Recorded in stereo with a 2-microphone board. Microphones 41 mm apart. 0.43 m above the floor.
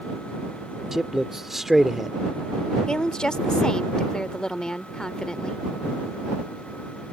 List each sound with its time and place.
0.9 s a man speaking: 10° right (ahead or behind)
2.9 s a woman speaking: 20° left (ahead or behind)